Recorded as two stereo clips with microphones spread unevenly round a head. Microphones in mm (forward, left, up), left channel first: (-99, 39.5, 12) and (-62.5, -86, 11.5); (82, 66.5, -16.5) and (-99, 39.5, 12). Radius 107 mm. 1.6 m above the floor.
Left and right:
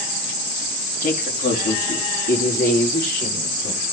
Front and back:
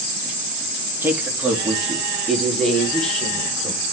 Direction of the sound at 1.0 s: 110° left.